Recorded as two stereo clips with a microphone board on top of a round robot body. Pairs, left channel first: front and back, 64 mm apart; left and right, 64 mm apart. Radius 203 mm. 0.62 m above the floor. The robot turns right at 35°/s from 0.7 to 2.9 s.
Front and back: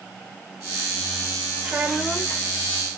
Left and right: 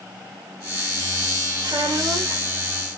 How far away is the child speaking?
About 2.5 m.